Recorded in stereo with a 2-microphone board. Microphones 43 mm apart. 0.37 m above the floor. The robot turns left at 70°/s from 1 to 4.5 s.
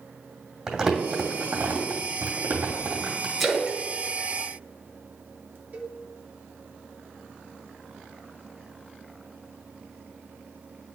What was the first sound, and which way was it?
Crumpling, 20° right (ahead or behind).